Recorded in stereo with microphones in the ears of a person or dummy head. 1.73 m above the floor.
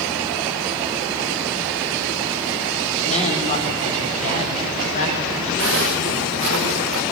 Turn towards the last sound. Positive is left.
turn(degrees=-70)  # may be behind; listen again after turning